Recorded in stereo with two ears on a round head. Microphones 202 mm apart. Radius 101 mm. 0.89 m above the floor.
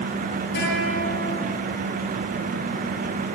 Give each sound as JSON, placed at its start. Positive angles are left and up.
{"t": 0.6, "sound": "a guitar", "side_deg": 50, "distance_m": 9.5}